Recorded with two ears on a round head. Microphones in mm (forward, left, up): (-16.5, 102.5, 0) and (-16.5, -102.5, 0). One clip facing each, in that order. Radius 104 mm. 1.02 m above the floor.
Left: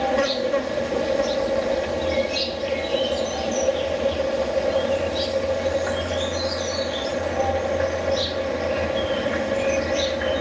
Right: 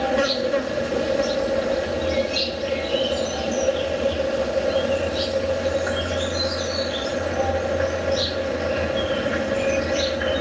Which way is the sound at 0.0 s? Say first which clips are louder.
Even; 5° right (ahead or behind).